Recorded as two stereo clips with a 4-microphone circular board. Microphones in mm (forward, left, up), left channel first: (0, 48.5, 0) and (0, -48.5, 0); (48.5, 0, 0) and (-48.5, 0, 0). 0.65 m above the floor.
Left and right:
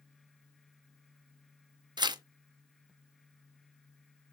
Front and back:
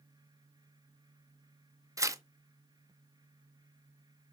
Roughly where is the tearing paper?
Behind right.